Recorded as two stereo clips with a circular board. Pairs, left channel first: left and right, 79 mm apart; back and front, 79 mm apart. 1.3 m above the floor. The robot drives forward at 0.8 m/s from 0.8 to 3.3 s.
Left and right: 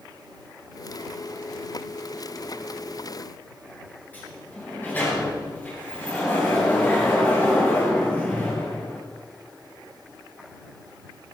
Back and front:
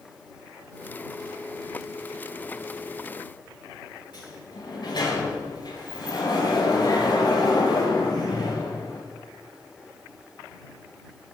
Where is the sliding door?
160° left, 8.5 m.